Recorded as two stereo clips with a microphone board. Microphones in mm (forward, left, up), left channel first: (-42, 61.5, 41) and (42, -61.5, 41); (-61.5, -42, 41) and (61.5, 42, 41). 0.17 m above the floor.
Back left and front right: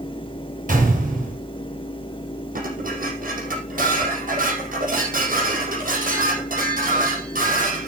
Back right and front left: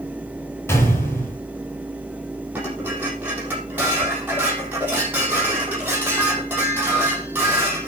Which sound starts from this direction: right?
A gunshot, at 0.7 s.